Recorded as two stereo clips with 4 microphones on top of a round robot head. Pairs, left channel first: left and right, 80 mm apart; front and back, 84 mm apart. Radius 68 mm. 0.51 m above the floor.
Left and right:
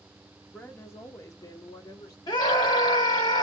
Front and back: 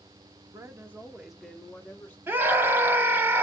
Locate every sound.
0.5 s a woman speaking: 155° left, 0.9 m; by 2.2 s 70° left, 1.2 m
2.3 s a scream: 120° left, 1.5 m